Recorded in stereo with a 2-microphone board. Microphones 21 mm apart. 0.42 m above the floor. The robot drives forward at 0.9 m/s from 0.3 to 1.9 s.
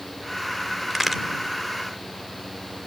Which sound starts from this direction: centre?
A crack, at 0.9 s.